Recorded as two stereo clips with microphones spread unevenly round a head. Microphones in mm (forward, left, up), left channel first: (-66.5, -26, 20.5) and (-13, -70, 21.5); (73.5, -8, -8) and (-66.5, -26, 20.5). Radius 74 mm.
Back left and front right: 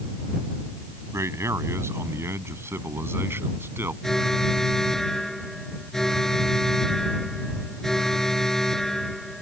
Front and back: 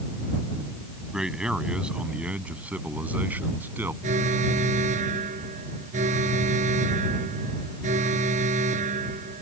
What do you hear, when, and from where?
1.1 s a man speaking: 90° right; by 3.9 s 95° right
4.0 s an alarm: 135° right